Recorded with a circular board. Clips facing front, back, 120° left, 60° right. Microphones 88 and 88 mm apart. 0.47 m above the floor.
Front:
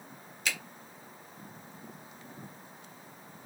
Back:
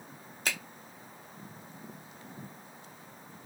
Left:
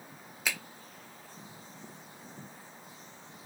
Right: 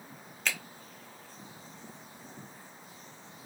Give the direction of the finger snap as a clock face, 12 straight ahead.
5 o'clock.